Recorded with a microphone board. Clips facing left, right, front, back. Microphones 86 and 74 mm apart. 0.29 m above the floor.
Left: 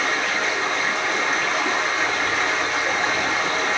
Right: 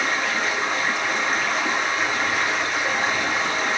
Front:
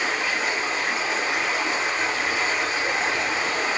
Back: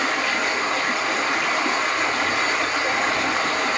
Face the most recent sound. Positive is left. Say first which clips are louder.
# left 1 dB, back 2 dB
turn(degrees=-175)